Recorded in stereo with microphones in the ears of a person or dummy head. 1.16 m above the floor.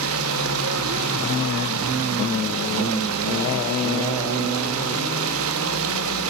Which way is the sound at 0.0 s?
75° right (ahead or behind).